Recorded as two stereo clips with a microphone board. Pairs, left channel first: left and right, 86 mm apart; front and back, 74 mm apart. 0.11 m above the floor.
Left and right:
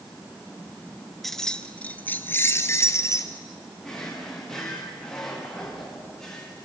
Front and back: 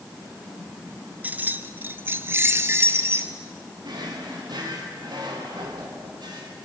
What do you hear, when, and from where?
1.2 s keys jangling: 175° left, 1.0 m; by 3.3 s 135° left, 1.7 m
3.8 s a drawer: 175° left, 6 m